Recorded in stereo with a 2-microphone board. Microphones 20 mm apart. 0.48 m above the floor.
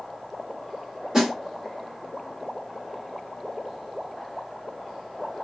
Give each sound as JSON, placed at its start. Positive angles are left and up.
{"t": 1.1, "sound": "a snare drum", "side_deg": -30, "distance_m": 1.2}